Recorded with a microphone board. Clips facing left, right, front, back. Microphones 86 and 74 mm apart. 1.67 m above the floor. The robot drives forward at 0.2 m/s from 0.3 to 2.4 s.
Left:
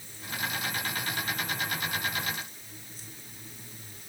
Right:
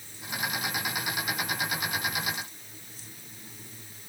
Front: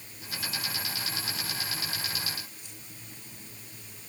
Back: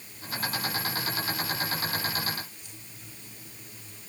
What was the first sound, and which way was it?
Only background noise.